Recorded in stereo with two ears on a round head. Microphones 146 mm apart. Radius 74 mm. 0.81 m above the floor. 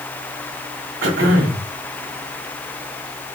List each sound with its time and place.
1.0 s throat clearing: 80° right, 4.5 m